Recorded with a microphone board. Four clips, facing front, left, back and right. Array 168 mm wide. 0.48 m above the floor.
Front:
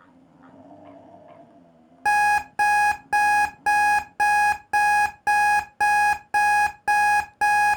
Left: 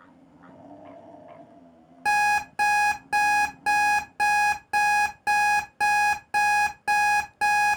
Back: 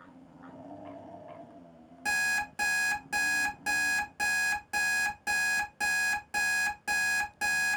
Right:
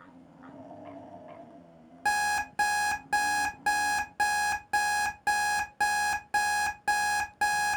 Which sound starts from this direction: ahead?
An alarm clock, at 2.0 s.